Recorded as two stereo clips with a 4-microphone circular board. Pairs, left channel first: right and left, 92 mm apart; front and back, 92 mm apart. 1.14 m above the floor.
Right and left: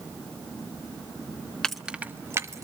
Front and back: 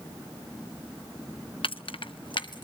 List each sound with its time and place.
1.6 s keys jangling: 10° right, 0.6 m; by 2.6 s 35° left, 1.2 m